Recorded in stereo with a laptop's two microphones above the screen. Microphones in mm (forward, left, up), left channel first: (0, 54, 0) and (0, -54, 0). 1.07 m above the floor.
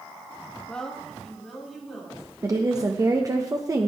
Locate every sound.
0.7 s a woman speaking: 10° left (ahead or behind), 1.4 m; by 2.2 s 5° right (ahead or behind), 3.5 m
2.4 s a woman speaking: 30° right (ahead or behind), 1.0 m